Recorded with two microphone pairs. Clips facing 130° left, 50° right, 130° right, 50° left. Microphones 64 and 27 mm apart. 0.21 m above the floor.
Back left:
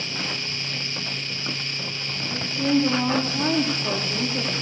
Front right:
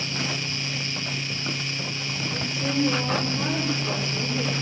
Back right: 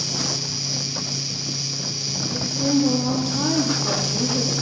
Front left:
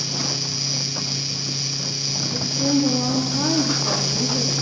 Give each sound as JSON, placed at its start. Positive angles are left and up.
{"t": 2.3, "sound": "a woman speaking", "azimuth_deg": 160, "distance_m": 8.5}